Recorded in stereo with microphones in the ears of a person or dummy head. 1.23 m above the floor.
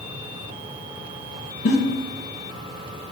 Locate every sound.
1.6 s a giggle: 45° left (ahead or behind), 0.9 m